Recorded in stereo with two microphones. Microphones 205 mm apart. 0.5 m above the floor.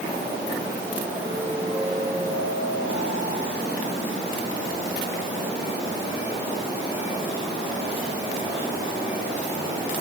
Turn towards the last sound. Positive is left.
No sound to turn to.